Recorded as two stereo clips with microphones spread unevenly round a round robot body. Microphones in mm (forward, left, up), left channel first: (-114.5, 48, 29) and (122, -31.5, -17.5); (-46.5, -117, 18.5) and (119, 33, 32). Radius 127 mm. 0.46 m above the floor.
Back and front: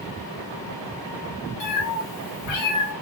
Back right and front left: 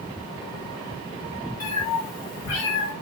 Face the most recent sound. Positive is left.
turn(degrees=175)